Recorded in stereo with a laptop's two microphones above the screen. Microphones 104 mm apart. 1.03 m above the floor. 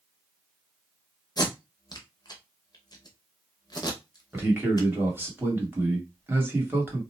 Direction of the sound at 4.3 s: 20° right (ahead or behind).